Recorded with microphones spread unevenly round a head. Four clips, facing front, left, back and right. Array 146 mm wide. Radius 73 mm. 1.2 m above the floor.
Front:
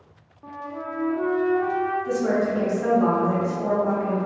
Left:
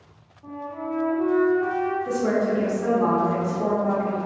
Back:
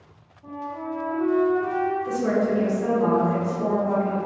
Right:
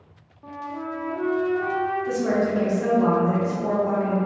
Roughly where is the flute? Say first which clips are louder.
Left 1 dB, back 1 dB; ahead right.